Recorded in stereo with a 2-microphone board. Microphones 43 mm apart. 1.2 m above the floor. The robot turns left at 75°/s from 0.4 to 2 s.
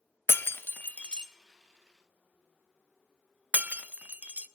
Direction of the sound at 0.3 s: 60° left (ahead or behind).